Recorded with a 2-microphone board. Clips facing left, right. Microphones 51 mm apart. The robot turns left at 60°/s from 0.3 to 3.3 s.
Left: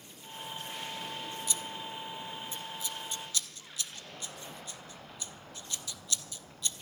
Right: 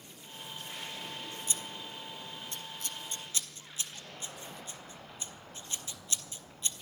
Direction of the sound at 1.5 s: 30° right (ahead or behind).